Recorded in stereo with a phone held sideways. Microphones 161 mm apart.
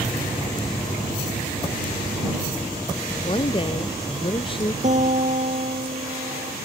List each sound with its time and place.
3.1 s a woman speaking: 35° left (ahead or behind)
4.8 s a guitar: 55° right (ahead or behind)